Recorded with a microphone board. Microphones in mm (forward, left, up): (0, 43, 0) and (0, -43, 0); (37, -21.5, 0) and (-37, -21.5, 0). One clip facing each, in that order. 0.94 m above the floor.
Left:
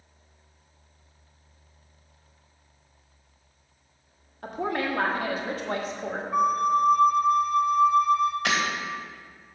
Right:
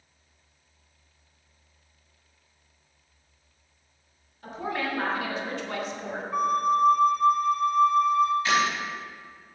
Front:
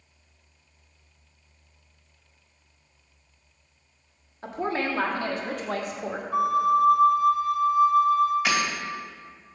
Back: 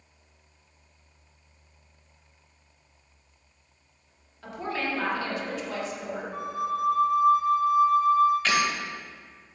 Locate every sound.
4.4 s a woman speaking: 55° left, 2.0 m; by 6.2 s 25° left, 1.4 m
6.3 s a flute: 5° left, 0.9 m
8.4 s breaking glass: 80° left, 2.5 m